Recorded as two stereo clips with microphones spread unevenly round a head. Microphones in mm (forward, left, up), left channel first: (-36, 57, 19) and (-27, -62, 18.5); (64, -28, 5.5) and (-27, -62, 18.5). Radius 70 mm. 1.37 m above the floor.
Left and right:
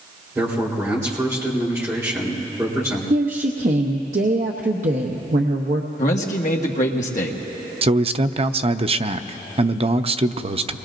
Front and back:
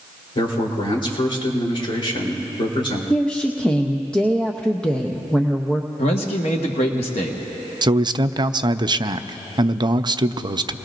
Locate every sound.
0.3 s a man speaking: 15° right, 3.5 m
3.1 s a woman speaking: 60° right, 0.8 m
6.0 s a man speaking: 60° left, 1.4 m
7.8 s a man speaking: 115° right, 0.6 m